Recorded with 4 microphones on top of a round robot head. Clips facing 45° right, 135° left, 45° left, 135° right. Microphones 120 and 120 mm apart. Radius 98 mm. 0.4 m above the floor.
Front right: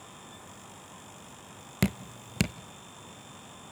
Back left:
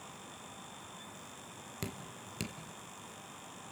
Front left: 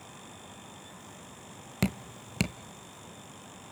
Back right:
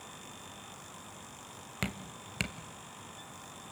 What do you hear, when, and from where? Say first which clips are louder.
1.8 s dripping: front right 14 dB, front left 8 dB; 15° right, 0.5 m